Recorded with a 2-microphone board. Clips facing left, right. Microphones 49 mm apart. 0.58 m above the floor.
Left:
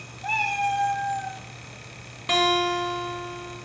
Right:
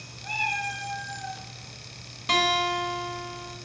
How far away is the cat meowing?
About 1.7 m.